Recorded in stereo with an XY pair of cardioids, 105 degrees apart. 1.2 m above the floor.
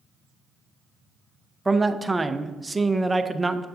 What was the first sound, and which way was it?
A man speaking, 15° right.